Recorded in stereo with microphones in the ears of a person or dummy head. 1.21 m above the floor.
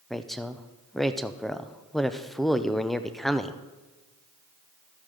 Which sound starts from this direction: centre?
A woman speaking, at 0.1 s.